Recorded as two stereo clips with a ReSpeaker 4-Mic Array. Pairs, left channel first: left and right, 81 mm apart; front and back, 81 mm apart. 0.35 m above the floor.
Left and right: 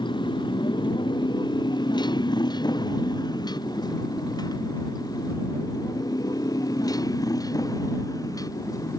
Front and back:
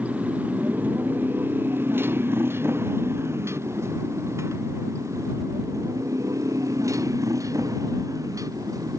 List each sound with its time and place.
0.0 s a motorcycle: 110° left; by 9.0 s 135° left